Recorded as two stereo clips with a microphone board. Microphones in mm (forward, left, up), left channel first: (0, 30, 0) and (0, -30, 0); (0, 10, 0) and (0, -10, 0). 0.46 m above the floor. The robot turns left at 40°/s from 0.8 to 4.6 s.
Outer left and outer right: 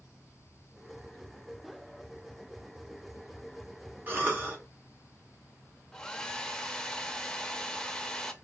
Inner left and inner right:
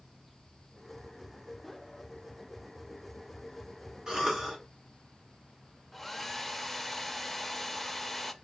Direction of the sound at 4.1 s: 35° right (ahead or behind).